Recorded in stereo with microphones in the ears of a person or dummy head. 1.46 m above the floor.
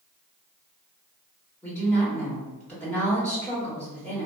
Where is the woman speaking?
10° left (ahead or behind), 1.5 m.